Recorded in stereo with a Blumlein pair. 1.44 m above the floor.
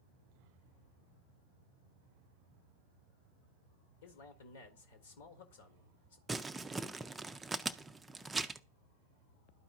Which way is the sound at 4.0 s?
60° left.